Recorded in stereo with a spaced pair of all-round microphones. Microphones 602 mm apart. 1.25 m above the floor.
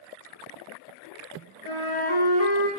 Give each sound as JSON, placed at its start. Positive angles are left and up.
{"t": 1.6, "sound": "a flute", "side_deg": 55, "distance_m": 0.7}